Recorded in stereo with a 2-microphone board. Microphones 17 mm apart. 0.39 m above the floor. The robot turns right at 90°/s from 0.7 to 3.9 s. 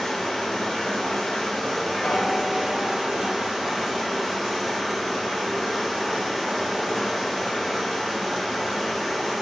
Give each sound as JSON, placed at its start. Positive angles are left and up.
{"t": 0.0, "sound": "running water", "azimuth_deg": 70, "distance_m": 1.8}
{"t": 2.0, "sound": "a piano", "azimuth_deg": 80, "distance_m": 0.6}